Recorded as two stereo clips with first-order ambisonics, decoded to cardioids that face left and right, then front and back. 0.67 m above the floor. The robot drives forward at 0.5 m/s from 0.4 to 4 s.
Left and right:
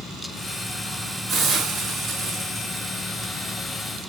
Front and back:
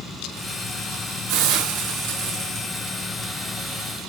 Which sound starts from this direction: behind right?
A hiss, at 1.3 s.